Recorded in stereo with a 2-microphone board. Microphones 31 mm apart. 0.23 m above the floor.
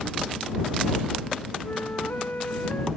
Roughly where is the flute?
Left.